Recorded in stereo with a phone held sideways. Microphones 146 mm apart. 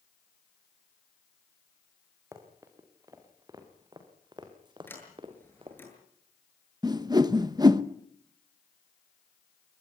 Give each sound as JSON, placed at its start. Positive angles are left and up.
{"t": 2.3, "sound": "running footsteps", "side_deg": -20, "distance_m": 5.0}
{"t": 4.9, "sound": "a sliding door", "side_deg": 15, "distance_m": 7.5}
{"t": 6.8, "sound": "a whoosh", "side_deg": -30, "distance_m": 1.0}